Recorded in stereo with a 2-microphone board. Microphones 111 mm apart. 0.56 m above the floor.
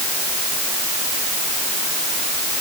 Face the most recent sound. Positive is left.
No sound to turn to.